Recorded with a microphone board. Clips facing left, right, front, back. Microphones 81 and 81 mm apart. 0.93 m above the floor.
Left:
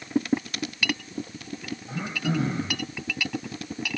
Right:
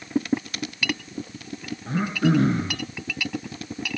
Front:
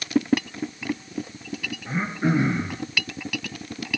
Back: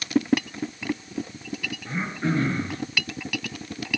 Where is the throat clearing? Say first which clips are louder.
Right 8 dB, front 3 dB; 75° right, 4 m.